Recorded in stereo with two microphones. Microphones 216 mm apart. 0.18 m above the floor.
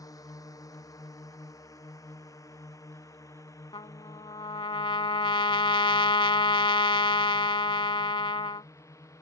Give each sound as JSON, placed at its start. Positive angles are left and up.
{"t": 0.0, "sound": "a drone", "side_deg": 15}
{"t": 3.7, "sound": "a trumpet", "side_deg": 25}